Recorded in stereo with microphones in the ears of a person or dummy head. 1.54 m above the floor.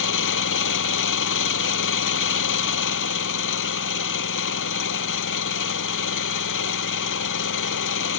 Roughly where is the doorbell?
I don't hear a doorbell.